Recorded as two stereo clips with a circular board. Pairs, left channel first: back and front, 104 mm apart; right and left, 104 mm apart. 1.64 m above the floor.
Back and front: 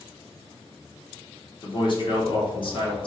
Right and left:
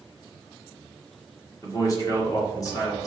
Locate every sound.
1.6 s a man speaking: 145° right, 1.3 m